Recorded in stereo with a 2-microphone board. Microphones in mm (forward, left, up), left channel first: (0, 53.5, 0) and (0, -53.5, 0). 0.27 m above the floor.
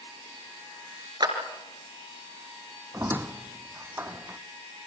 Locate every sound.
1.2 s a clap: 40° right (ahead or behind), 3.5 m
2.9 s a squeak: 20° right (ahead or behind), 0.9 m